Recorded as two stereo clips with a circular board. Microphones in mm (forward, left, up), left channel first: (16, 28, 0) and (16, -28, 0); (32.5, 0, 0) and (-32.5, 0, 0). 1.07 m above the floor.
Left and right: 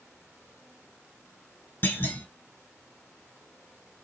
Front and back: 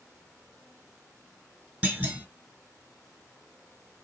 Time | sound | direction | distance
1.8 | a clunk | 120° left | 1.2 m